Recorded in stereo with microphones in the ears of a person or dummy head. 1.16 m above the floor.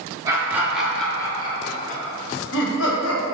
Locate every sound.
0.2 s laughter: 25° right (ahead or behind), 0.9 m; by 3.2 s 70° left (ahead or behind), 1.1 m